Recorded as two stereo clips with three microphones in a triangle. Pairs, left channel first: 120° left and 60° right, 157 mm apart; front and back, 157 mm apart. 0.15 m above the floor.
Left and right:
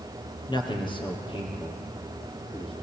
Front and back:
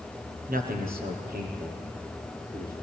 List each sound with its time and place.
0.5 s a man speaking: straight behind, 4 m; by 2.7 s 175° left, 6 m